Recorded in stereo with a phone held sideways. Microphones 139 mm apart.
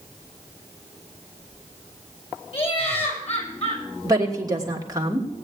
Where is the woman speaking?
25° right (ahead or behind), 3 m.